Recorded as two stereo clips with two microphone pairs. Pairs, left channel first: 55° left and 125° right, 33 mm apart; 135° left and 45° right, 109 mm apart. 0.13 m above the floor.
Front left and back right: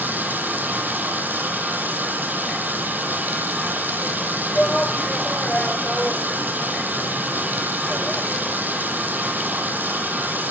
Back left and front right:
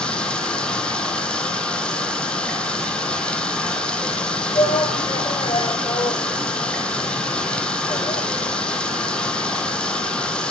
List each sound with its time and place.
0.0 s running water: 145° right, 3 m
4.5 s a shout: 120° left, 2.0 m